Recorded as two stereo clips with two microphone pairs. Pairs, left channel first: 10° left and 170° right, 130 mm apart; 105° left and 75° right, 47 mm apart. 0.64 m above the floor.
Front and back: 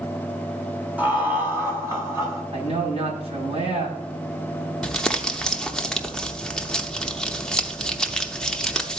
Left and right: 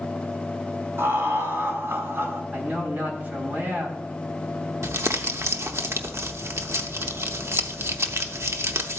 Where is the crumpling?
75° right, 0.7 m.